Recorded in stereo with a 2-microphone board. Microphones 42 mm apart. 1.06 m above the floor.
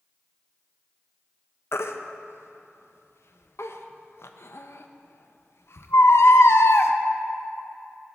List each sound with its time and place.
1.7 s a baby crying: 75° left (ahead or behind), 0.6 m